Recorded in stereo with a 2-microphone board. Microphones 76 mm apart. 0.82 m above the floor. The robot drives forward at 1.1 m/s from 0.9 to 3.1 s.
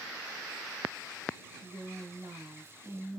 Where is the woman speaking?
30° right (ahead or behind), 1.9 m; by 3.2 s 50° right (ahead or behind), 1.4 m.